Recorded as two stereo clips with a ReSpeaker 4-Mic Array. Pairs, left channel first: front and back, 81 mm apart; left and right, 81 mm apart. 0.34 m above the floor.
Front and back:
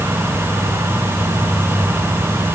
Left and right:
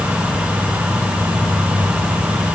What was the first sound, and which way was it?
Only background noise.